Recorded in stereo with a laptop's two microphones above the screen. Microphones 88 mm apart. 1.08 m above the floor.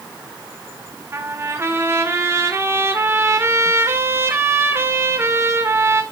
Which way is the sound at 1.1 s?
30° right (ahead or behind).